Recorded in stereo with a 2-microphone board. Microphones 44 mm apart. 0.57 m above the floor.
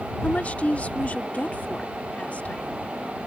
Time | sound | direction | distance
0.2 | a woman speaking | 35° left (ahead or behind) | ?